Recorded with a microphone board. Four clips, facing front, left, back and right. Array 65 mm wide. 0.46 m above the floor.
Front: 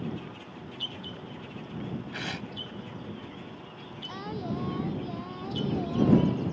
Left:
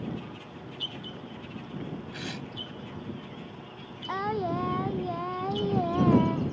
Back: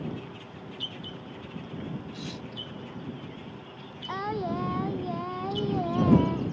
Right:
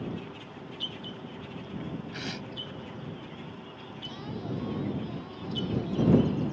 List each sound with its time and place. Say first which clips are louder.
2.1 s tearing paper: even, front 3 dB; 5° right
4.1 s singing: left 9 dB, back 5 dB; 120° left